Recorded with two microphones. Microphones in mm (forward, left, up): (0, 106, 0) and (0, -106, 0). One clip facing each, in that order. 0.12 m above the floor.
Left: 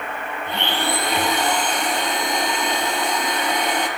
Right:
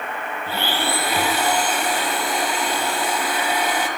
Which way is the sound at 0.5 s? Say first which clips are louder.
Even; 5° right (ahead or behind).